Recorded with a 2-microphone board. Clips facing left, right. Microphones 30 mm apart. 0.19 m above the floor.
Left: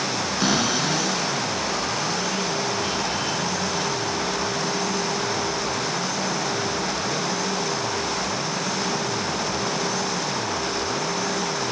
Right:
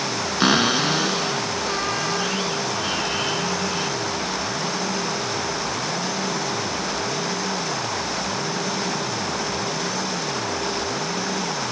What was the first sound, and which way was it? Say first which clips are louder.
A cupboard door: right 5 dB; 30° right (ahead or behind).